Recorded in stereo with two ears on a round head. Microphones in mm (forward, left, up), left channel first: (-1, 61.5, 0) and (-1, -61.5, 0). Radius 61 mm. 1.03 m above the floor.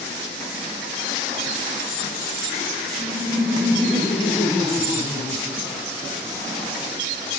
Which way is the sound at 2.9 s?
15° right (ahead or behind).